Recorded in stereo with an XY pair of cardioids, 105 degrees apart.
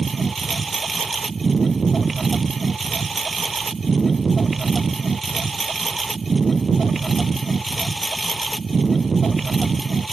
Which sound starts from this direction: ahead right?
A lawn mower, at 0.0 s.